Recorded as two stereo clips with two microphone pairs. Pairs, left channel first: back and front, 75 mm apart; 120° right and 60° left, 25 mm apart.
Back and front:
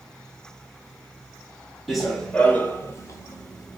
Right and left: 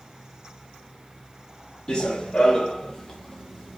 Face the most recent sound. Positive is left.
turn(degrees=160)